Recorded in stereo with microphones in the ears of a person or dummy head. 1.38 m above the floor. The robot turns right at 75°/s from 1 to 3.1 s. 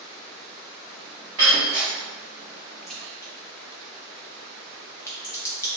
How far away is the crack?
About 0.9 m.